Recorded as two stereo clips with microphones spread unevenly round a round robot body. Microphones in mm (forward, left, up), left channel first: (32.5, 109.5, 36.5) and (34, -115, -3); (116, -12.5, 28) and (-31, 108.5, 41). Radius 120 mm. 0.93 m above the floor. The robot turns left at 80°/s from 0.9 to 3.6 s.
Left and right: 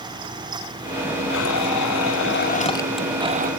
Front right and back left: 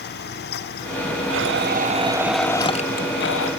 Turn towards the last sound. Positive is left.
turn(degrees=-50)